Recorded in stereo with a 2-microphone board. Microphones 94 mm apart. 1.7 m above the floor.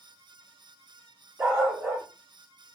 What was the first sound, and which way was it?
A dog barking, 20° right (ahead or behind).